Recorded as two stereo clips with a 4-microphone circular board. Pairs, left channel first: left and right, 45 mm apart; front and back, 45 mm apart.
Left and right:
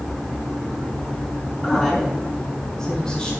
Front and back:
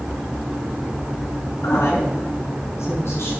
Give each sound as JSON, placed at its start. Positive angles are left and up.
{"t": 1.6, "sound": "a woman speaking", "azimuth_deg": -5, "distance_m": 6.5}